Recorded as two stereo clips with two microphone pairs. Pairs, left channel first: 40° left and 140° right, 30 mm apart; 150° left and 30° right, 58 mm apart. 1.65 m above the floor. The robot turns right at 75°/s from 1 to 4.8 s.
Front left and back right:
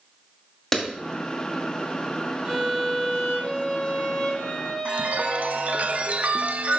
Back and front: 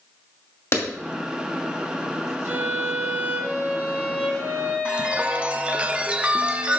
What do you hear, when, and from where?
0.7 s a clap: 120° left, 2.5 m
2.5 s a violin: 75° right, 2.5 m; by 5.8 s 105° left, 2.5 m
4.8 s a chime: 100° right, 0.6 m